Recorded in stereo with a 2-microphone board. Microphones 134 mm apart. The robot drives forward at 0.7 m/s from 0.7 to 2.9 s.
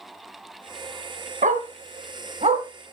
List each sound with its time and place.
1.4 s a dog barking: 75° right (ahead or behind), 1.1 m; by 2.6 s 50° right (ahead or behind), 1.4 m